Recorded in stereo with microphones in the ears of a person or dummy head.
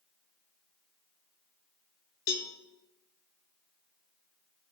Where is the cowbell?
50° left (ahead or behind), 1.2 m.